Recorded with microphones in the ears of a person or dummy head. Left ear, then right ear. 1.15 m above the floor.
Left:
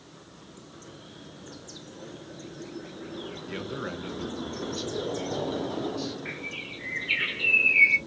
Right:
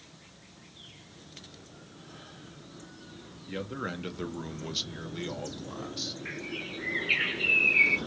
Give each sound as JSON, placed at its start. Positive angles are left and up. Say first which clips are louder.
{"t": 3.5, "sound": "a man speaking", "louder": "right 1 dB", "side_deg": 15, "distance_m": 0.6}
{"t": 6.2, "sound": "a bird", "louder": "left 2 dB", "side_deg": 5, "distance_m": 1.4}